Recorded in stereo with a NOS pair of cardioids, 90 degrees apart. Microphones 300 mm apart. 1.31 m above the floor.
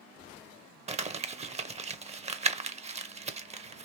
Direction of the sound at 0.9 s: 20° right.